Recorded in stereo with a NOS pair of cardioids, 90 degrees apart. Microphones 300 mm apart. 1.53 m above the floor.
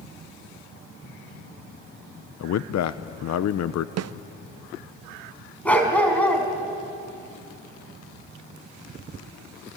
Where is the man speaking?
60° left, 0.9 m.